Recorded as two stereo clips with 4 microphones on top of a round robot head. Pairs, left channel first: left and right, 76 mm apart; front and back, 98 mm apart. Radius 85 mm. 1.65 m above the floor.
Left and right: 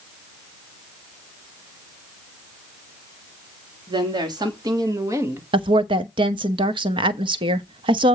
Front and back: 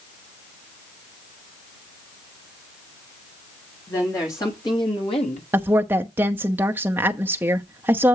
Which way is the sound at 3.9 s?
70° right.